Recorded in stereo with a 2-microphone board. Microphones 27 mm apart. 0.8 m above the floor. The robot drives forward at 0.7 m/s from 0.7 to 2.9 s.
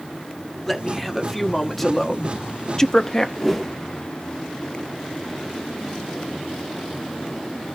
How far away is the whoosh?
About 0.7 m.